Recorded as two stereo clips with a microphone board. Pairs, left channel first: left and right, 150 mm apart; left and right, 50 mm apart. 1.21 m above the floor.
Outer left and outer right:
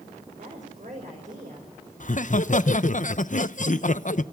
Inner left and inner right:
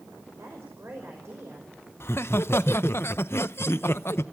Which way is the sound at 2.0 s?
60° left (ahead or behind).